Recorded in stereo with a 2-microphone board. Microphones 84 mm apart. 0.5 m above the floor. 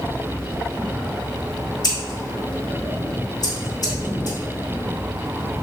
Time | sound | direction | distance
1.8 | scissors | 50° left (ahead or behind) | 1.5 m